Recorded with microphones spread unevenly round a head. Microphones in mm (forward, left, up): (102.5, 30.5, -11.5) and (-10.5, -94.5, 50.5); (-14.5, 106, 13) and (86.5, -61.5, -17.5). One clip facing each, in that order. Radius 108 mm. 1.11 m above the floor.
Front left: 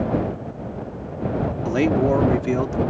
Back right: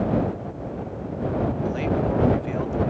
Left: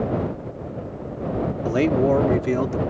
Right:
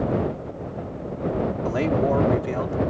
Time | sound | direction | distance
1.6 | a man speaking | 60° left | ?